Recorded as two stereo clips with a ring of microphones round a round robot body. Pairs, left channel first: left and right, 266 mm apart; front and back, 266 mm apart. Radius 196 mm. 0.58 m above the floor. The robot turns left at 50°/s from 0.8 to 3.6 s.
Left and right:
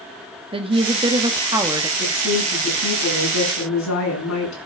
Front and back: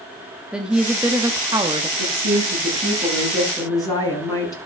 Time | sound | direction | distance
0.5 | a woman speaking | 100° right | 0.9 m
2.0 | a woman speaking | 155° left | 6.5 m